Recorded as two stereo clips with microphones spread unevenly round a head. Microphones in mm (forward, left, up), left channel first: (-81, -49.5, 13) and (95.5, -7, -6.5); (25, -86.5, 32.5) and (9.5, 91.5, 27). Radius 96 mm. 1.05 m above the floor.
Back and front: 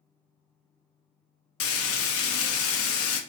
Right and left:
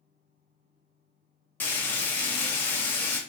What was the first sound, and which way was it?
Frying, 165° right.